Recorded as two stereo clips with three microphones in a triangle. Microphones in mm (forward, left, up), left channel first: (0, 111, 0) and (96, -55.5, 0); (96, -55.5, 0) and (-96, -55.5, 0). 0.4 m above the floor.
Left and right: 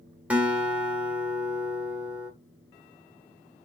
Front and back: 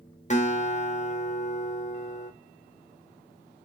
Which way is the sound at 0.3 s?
20° left.